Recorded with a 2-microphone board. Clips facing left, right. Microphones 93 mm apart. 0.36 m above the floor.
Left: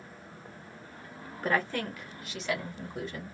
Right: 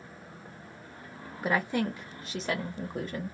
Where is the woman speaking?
10° right (ahead or behind), 0.9 m; by 3.4 s 45° right (ahead or behind), 1.4 m.